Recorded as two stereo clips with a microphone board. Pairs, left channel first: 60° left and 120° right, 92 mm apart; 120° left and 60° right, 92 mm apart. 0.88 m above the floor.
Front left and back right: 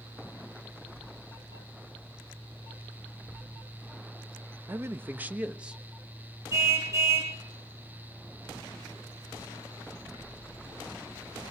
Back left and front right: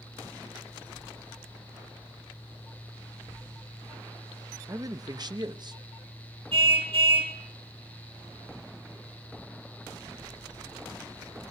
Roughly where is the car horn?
Ahead right.